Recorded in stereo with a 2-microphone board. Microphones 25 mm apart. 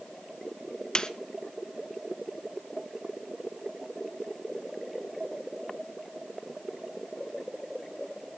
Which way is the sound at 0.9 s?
35° left (ahead or behind).